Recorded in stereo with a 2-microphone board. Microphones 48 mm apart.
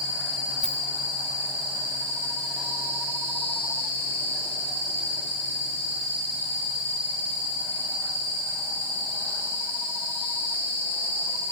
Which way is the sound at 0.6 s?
10° left (ahead or behind).